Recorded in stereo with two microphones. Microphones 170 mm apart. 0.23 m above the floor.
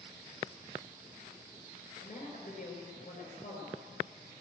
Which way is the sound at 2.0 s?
50° left (ahead or behind).